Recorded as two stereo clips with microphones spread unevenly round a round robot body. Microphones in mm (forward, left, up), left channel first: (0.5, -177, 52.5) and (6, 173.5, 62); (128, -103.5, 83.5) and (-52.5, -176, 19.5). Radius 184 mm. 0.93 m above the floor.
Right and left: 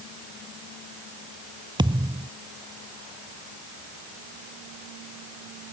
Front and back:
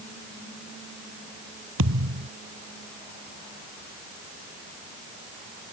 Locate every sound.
1.8 s a thud: 170° left